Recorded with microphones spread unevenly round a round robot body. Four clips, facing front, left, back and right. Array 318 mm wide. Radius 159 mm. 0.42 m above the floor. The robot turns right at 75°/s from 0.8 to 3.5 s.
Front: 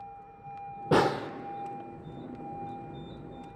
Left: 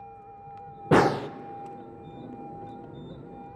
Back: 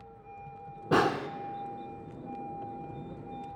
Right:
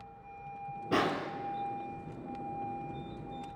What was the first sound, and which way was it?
A snare drum, 70° left.